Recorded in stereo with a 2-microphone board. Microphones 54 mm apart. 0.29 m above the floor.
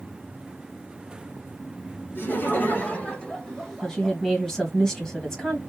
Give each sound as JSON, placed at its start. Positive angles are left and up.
{"t": 2.1, "sound": "laughter", "side_deg": 40, "distance_m": 1.7}
{"t": 3.8, "sound": "a woman speaking", "side_deg": 10, "distance_m": 2.0}